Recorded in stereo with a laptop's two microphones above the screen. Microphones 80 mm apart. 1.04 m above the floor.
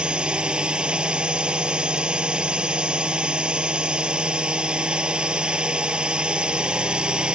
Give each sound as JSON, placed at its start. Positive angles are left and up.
{"t": 0.0, "sound": "a drone", "side_deg": -10}